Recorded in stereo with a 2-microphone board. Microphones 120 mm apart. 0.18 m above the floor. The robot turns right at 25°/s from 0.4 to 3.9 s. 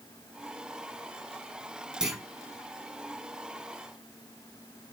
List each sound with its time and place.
2.0 s a clunk: 5° right (ahead or behind), 1.7 m; by 2.2 s centre (ahead or behind), 1.7 m